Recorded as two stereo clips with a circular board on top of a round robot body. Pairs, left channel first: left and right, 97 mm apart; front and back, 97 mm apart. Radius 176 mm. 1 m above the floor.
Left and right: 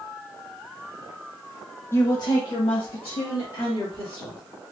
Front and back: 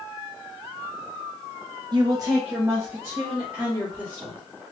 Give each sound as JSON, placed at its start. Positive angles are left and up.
{"t": 1.9, "sound": "a woman speaking", "azimuth_deg": 150, "distance_m": 0.6}